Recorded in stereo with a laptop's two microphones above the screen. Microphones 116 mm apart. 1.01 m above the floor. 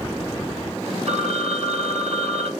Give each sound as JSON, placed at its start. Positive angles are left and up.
{"t": 1.1, "sound": "a phone ringing", "side_deg": -65, "distance_m": 2.0}